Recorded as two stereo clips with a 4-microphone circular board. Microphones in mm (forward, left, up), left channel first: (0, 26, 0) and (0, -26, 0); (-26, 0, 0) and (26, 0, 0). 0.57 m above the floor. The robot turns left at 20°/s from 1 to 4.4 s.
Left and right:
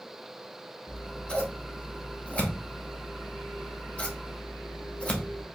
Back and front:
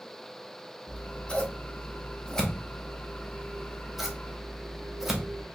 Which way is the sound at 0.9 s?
140° left.